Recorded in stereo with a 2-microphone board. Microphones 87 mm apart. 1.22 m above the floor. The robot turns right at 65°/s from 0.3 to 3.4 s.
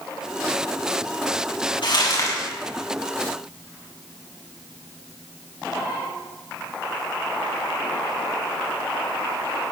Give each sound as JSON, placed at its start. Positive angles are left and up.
{"t": 1.8, "sound": "crumpling", "azimuth_deg": 115, "distance_m": 7.5}